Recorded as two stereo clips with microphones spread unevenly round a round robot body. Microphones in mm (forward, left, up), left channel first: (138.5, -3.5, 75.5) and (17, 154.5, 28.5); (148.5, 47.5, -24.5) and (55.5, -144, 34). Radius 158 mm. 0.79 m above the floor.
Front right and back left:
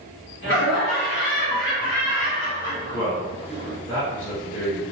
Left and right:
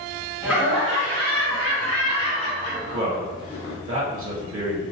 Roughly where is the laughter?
Ahead.